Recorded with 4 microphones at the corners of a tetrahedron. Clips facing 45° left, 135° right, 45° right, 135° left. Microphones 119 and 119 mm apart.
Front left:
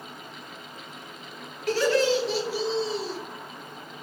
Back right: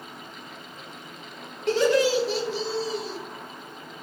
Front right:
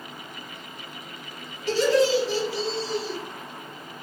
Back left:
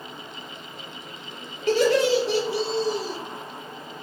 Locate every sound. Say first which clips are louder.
1.7 s laughter: back right 2 dB, back left 1 dB; 165° left, 0.8 m; by 3.2 s 90° left, 0.7 m